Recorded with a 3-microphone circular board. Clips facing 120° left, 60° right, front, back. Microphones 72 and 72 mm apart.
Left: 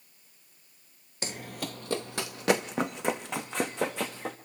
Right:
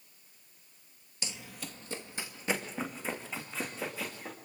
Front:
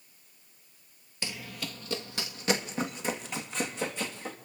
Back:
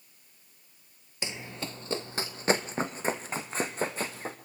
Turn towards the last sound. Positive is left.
turn(degrees=125)